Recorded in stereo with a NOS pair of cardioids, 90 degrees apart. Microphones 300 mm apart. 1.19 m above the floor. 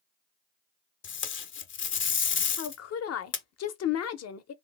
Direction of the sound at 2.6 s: 55° left.